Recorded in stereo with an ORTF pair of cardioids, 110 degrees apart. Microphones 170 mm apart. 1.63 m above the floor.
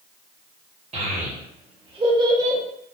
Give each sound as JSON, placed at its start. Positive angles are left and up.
{"t": 0.9, "sound": "a child speaking", "azimuth_deg": -45, "distance_m": 1.5}